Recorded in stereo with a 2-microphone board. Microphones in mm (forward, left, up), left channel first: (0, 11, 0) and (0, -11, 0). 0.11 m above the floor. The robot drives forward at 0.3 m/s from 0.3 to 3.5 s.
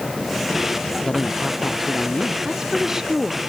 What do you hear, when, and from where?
1.1 s a man speaking: 35° left (ahead or behind); by 2.4 s 40° left (ahead or behind)
2.5 s a woman speaking: 20° right (ahead or behind); by 3.4 s 15° right (ahead or behind)